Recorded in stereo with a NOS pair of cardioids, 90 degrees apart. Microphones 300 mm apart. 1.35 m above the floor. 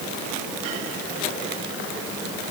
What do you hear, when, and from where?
Only background noise.